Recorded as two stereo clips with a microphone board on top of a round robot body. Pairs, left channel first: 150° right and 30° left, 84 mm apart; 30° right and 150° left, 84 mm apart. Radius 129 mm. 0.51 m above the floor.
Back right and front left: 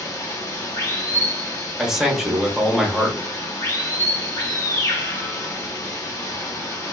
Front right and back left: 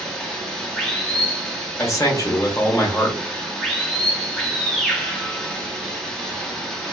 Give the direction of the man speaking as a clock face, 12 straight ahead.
2 o'clock.